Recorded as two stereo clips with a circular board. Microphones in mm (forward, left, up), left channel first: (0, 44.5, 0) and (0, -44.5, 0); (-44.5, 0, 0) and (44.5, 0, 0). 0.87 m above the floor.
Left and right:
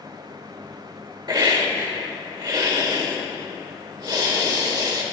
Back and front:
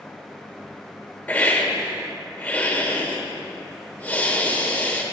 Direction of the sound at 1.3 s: 115° right.